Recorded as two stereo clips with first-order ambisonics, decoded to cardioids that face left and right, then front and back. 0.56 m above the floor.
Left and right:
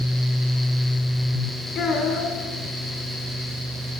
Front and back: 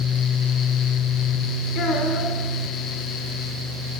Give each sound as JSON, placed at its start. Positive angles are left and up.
{"t": 1.8, "sound": "a child speaking", "azimuth_deg": 40, "distance_m": 1.3}